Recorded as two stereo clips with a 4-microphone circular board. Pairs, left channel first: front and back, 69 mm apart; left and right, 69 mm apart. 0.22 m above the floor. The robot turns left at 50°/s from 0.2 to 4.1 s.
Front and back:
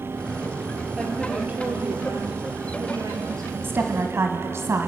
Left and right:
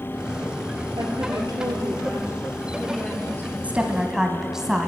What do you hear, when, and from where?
1.0 s a woman speaking: 85° right, 5 m; by 3.5 s 145° left, 5 m
3.6 s a woman speaking: 145° right, 1.4 m; by 4.9 s 170° right, 1.4 m